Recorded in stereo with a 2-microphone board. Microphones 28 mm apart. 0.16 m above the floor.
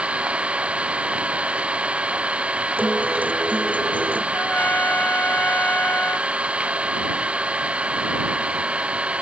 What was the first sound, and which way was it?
An engine running, 45° right (ahead or behind).